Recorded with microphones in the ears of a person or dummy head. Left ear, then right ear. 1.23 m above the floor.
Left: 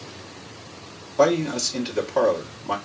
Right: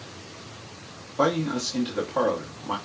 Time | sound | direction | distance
1.2 | a man speaking | 25° left (ahead or behind) | 1.4 m